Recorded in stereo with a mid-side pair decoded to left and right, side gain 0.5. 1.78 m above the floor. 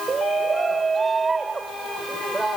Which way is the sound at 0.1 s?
30° right.